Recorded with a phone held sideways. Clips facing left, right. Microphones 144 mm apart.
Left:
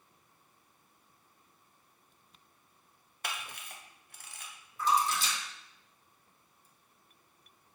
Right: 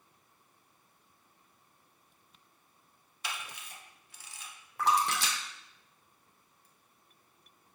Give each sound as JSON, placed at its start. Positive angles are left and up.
{"t": 3.2, "sound": "a camera shutter", "side_deg": 55, "distance_m": 0.6}
{"t": 4.8, "sound": "a splash", "side_deg": -70, "distance_m": 0.5}